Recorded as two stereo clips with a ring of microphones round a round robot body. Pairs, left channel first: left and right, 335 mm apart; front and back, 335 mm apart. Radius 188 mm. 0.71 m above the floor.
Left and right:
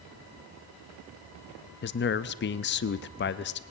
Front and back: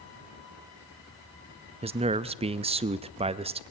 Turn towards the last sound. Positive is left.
turn(degrees=120)